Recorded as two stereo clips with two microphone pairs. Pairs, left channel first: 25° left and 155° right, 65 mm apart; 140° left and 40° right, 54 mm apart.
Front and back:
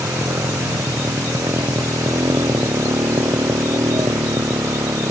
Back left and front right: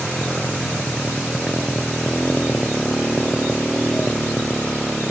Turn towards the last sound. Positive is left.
turn(degrees=-140)